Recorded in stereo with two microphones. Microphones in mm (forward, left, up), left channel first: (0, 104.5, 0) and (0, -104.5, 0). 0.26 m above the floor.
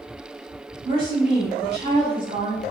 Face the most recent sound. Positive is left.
turn(degrees=-30)  # may be behind; listen again after turning